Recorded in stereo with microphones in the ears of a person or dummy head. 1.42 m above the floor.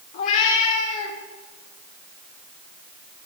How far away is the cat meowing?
About 1.5 m.